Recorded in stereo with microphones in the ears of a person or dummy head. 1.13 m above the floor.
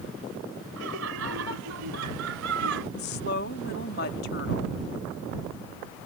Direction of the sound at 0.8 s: 80° right.